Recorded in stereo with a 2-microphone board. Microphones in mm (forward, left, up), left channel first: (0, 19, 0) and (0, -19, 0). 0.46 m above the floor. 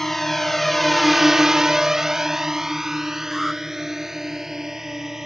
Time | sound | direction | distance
0.0 | a drone | 5° left (ahead or behind) | ?
3.3 | an alarm | 5° left (ahead or behind) | ?